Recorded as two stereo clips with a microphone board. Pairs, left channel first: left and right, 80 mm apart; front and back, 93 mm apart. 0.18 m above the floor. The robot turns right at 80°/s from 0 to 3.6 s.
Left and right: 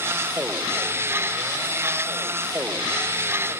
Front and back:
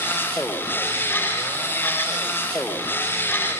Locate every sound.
Only background noise.